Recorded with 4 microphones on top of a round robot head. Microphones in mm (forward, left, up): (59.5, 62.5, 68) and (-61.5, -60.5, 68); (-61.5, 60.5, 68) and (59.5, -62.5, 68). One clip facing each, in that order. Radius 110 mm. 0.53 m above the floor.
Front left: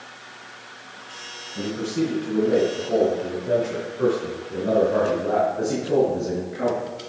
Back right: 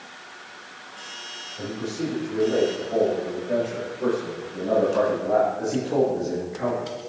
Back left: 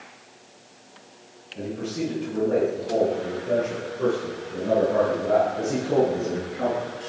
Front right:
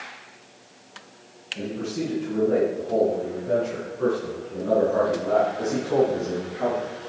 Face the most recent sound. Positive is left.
turn(degrees=85)